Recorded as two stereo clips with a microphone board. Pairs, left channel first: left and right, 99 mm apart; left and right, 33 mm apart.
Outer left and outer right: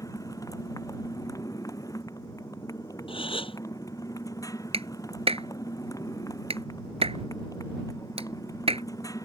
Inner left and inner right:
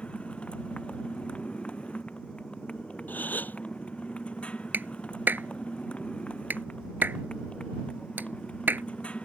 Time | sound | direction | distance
0.0 | a motorcycle | 35° left (ahead or behind) | ?
3.1 | a gasp | 65° left (ahead or behind) | ?
4.7 | a clap | 75° right (ahead or behind) | ?